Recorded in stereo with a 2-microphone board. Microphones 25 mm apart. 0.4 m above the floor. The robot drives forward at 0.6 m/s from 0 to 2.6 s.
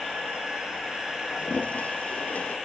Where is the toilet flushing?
75° left (ahead or behind), 1.5 m; by 2.5 s 70° left (ahead or behind), 1.5 m.